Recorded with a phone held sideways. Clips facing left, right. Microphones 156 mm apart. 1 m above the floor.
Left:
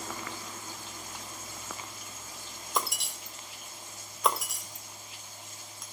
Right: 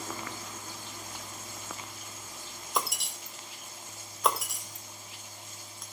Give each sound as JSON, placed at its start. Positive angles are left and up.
{"t": 2.8, "sound": "breaking glass", "side_deg": 0, "distance_m": 1.9}